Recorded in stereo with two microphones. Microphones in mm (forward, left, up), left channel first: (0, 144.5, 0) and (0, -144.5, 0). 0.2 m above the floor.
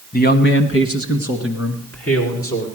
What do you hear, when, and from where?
0.1 s a man speaking: 30° left (ahead or behind), 1.2 m; by 2.7 s 50° left (ahead or behind), 3 m